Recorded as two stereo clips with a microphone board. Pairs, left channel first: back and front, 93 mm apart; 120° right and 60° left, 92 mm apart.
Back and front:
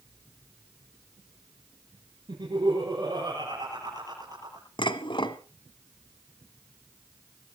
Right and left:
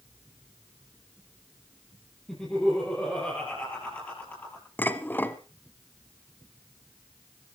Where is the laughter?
35° right, 8 m; by 4.7 s 50° right, 7 m.